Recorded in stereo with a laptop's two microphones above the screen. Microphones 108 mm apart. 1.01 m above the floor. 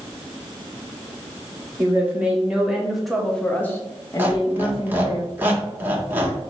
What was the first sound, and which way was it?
A woman speaking, 15° right (ahead or behind).